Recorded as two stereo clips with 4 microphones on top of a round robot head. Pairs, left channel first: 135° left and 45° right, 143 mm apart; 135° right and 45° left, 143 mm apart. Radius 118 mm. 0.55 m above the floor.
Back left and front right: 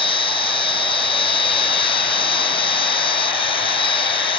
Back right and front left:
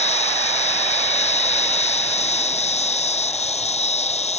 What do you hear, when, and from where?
0.0 s an insect: 175° right